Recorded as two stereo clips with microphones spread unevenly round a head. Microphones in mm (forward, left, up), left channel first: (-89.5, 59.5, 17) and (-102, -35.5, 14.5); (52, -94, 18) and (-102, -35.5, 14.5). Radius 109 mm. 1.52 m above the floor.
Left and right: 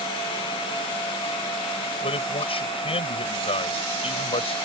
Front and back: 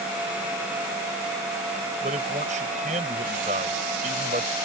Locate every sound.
2.0 s a man speaking: 100° left